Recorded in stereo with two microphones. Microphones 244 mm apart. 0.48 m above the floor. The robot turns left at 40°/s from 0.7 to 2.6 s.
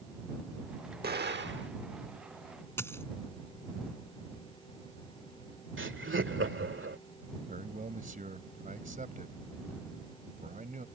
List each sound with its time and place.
1.0 s an explosion: 40° right (ahead or behind); by 1.7 s 50° right (ahead or behind)
2.8 s a dropped coin: 10° left (ahead or behind)
5.8 s laughter: 55° right (ahead or behind)
7.5 s a man speaking: 35° right (ahead or behind)